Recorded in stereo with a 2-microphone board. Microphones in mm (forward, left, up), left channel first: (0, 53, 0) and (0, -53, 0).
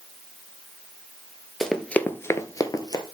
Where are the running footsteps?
5° left (ahead or behind), 0.8 m; by 3.0 s 40° left (ahead or behind), 1.0 m.